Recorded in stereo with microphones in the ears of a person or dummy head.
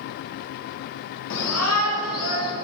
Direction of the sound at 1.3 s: 70° left (ahead or behind).